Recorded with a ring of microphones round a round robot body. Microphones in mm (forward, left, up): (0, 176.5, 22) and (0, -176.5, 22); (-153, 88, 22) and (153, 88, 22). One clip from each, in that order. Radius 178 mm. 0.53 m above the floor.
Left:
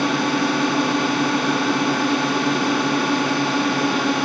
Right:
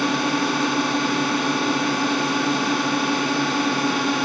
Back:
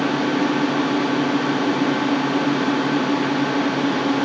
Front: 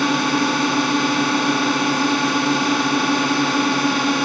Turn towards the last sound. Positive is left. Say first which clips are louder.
# left 1 dB, front 2 dB
turn(degrees=-15)